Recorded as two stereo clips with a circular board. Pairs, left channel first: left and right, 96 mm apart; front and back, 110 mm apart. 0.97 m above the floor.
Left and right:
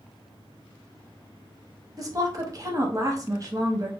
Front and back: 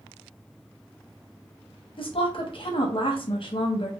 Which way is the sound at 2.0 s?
35° right.